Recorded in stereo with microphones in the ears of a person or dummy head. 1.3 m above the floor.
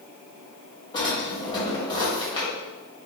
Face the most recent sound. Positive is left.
turn(degrees=20)  # may be behind; listen again after turning